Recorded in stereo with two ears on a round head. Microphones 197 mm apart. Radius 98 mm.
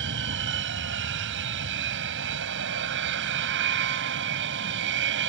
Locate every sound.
0.0 s an aircraft: 60° right (ahead or behind)